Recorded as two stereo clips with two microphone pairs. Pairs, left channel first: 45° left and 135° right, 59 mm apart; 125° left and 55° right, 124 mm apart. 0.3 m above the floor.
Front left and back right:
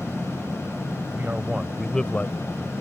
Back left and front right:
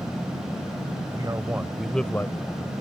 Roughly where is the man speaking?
Right.